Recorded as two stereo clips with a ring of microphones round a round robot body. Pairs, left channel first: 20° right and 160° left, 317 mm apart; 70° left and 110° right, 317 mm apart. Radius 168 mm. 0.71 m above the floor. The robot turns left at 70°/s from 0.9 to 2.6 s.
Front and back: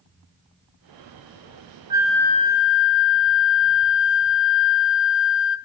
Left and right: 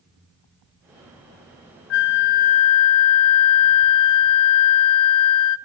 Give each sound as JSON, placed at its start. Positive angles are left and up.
{"t": 1.9, "sound": "a flute", "azimuth_deg": 80, "distance_m": 0.8}